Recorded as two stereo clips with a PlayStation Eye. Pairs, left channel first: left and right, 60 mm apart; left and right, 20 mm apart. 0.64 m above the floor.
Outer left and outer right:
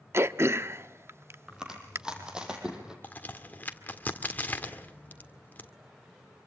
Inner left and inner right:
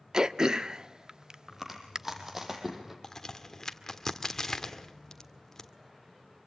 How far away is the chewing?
About 4.5 m.